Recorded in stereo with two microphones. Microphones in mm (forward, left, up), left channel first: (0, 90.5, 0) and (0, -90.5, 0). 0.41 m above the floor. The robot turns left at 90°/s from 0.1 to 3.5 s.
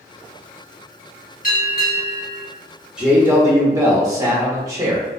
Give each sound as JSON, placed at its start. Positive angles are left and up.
{"t": 1.4, "sound": "a bell", "azimuth_deg": 120, "distance_m": 1.9}
{"t": 3.0, "sound": "a man speaking", "side_deg": -5, "distance_m": 0.8}